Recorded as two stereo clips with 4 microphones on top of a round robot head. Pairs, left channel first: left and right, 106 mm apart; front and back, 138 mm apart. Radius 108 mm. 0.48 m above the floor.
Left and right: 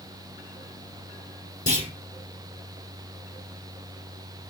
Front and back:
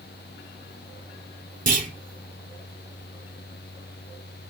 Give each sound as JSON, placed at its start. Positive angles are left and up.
{"t": 1.7, "sound": "a clunk", "azimuth_deg": 155, "distance_m": 5.5}